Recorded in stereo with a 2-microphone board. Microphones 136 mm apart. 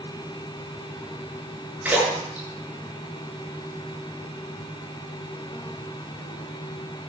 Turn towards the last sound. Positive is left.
turn(degrees=-10)  # may be behind; listen again after turning